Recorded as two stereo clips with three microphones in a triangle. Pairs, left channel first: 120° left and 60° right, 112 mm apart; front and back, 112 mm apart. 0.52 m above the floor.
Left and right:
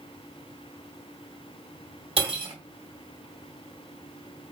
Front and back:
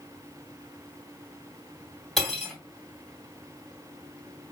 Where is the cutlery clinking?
90° right, 2 m.